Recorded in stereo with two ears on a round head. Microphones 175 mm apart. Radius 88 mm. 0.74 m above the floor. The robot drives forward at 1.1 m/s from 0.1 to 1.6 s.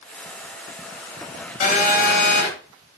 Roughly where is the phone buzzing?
Left.